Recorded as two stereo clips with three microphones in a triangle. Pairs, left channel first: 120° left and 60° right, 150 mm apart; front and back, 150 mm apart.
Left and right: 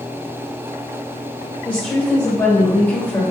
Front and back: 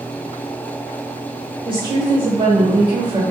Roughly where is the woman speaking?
Behind.